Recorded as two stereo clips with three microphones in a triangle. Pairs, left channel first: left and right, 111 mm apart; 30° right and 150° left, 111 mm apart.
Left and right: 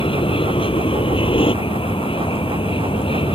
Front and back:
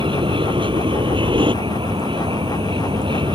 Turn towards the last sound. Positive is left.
turn(degrees=115)